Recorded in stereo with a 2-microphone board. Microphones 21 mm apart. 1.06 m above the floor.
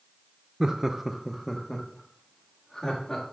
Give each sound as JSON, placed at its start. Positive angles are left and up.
{"t": 0.6, "sound": "laughter", "side_deg": -30, "distance_m": 0.6}